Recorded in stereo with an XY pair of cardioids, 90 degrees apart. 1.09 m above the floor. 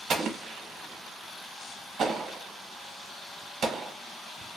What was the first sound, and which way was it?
An explosion, 60° right.